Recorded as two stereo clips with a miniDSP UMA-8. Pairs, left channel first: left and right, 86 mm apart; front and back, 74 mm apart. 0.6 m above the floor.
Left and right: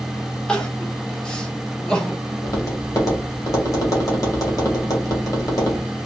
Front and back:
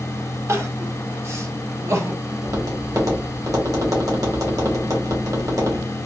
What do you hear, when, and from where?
0.5 s crying: 160° left, 0.9 m
2.4 s tapping: 140° left, 1.7 m